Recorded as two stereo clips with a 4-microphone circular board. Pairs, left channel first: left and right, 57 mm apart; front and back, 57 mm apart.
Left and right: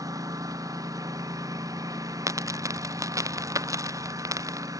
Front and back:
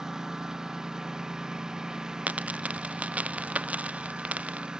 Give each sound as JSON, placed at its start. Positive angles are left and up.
{"t": 0.0, "sound": "a lawn mower", "azimuth_deg": -100}
{"t": 2.3, "sound": "a dropped coin", "azimuth_deg": -115}